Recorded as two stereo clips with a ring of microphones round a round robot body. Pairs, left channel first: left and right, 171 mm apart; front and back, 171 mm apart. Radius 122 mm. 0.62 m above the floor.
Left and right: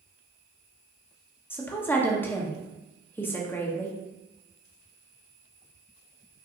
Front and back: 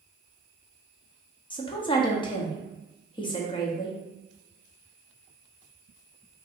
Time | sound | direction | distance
1.5 | a woman speaking | 25° left | 0.9 m